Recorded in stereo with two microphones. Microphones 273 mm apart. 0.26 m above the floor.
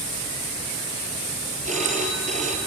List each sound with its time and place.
1.6 s a phone ringing: 25° right (ahead or behind), 4 m